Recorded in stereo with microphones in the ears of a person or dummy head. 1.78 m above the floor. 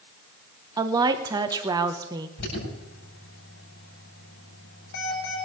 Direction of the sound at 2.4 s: 60° left (ahead or behind).